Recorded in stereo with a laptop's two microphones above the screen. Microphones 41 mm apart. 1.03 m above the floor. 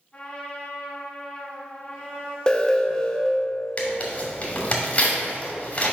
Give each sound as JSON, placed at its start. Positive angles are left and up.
{"t": 0.1, "sound": "a trumpet", "side_deg": 25, "distance_m": 2.0}
{"t": 2.5, "sound": "an alarm", "side_deg": 15, "distance_m": 0.6}
{"t": 3.8, "sound": "tearing paper", "side_deg": 35, "distance_m": 2.0}